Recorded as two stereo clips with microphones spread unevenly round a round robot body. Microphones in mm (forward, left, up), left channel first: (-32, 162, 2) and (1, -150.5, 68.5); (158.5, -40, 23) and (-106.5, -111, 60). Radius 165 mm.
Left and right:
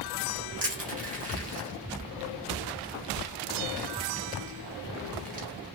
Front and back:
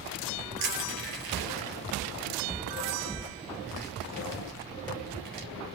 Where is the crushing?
150° right, 2.5 m.